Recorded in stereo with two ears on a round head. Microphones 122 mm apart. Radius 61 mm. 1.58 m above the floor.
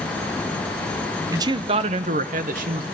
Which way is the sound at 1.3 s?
25° right (ahead or behind).